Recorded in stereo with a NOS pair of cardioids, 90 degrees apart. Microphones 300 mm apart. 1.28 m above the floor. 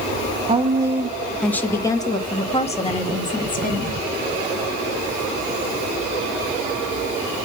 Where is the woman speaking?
20° right, 1.0 m; by 4.0 s 30° left, 2.5 m.